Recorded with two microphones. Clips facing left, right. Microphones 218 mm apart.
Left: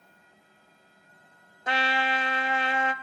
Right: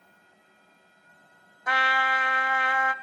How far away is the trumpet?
About 0.5 m.